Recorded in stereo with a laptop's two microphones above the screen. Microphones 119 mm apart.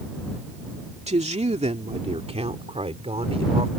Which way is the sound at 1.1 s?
70° right (ahead or behind).